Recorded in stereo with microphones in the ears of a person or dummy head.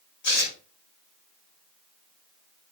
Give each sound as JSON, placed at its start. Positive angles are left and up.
{"t": 0.2, "sound": "tearing paper", "side_deg": 70, "distance_m": 6.5}